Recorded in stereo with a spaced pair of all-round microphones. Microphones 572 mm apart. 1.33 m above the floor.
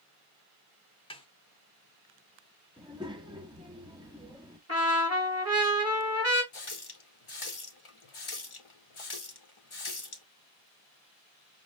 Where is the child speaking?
10° right (ahead or behind), 0.9 m.